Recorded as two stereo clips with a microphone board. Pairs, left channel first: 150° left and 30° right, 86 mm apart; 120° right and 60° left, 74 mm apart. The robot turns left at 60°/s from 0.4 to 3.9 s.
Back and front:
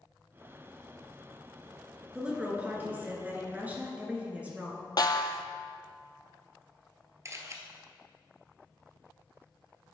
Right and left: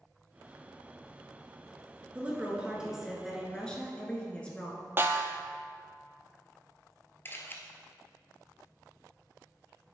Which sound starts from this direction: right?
A camera shutter, at 7.2 s.